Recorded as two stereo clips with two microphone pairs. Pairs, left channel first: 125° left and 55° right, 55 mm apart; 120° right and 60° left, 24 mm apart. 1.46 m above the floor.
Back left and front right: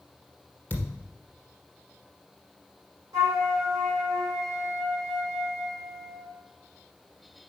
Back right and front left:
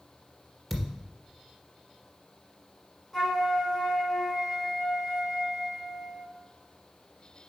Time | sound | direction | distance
0.7 | a thud | 150° left | 1.6 m
3.1 | a flute | 40° right | 3.5 m